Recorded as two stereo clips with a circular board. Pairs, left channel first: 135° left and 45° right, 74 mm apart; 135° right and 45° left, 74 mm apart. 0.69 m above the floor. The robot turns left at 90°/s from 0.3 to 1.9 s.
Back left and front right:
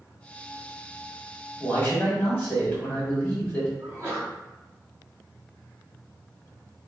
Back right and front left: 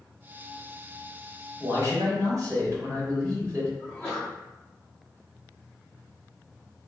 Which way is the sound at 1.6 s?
100° left.